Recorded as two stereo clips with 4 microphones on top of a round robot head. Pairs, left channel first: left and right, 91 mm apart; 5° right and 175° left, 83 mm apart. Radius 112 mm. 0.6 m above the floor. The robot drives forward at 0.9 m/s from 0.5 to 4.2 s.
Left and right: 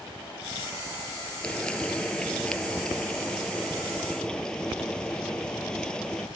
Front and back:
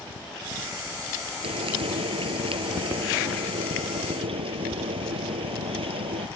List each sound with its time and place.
1.4 s frying: 170° left; by 6.3 s 175° left